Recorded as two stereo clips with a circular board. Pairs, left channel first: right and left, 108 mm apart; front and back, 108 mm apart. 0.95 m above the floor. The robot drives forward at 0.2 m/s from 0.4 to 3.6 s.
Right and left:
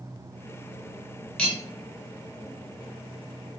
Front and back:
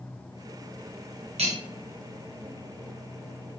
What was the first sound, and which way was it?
Cutlery clinking, 170° right.